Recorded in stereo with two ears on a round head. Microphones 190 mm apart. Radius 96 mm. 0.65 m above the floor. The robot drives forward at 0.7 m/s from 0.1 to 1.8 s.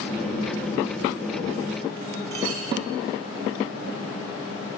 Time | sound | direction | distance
2.3 | a clink | 85° right | 4.5 m